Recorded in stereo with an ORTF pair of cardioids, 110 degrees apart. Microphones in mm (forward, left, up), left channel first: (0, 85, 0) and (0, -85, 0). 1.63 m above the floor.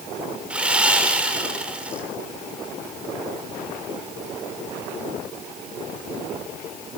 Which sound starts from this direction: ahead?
Sawing, at 0.5 s.